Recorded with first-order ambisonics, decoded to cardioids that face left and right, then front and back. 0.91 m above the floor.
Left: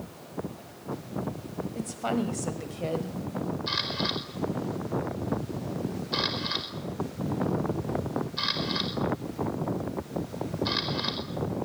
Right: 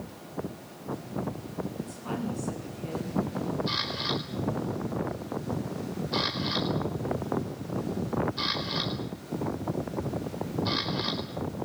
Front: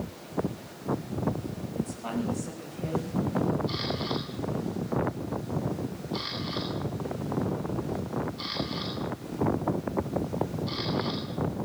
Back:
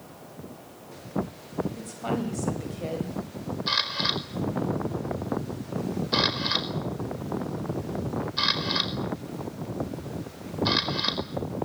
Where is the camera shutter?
170° left, 4.5 m.